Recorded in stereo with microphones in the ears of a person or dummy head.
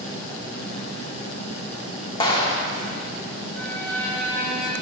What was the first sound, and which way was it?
A clap, 25° left (ahead or behind).